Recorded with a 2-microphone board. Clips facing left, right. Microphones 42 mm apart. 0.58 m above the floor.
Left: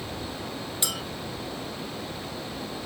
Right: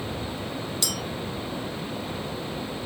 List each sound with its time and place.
0.8 s a clink: 25° left (ahead or behind), 0.5 m